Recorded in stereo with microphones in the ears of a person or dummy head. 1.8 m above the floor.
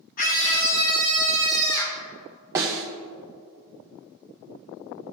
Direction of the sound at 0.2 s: 45° left (ahead or behind).